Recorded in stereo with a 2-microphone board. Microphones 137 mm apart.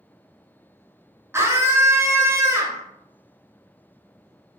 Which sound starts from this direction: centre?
A scream, at 1.3 s.